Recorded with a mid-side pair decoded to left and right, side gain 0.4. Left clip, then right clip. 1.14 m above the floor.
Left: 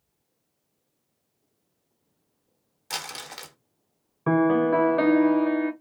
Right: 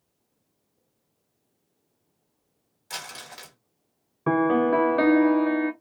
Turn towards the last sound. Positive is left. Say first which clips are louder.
# even
turn(degrees=-10)